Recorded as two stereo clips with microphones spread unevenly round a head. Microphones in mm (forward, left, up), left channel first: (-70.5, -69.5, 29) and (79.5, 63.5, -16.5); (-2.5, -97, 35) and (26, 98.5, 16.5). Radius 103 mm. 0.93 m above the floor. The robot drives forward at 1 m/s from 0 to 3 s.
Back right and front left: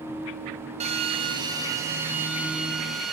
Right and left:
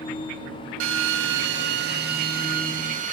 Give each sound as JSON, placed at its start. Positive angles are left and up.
{"t": 0.8, "sound": "a drill", "azimuth_deg": 105, "distance_m": 3.0}